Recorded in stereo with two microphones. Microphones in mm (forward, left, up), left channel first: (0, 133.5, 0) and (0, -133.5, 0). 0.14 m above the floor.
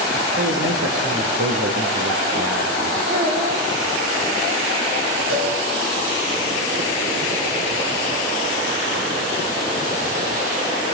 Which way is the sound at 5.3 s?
55° right (ahead or behind).